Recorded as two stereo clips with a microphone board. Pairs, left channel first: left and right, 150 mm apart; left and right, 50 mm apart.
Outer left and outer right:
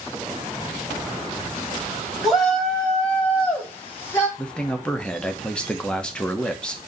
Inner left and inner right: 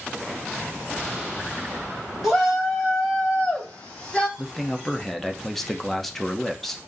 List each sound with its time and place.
2.2 s a shout: centre (ahead or behind), 2.5 m; by 4.3 s 15° left (ahead or behind), 3.5 m
4.4 s a man speaking: 5° left (ahead or behind), 1.0 m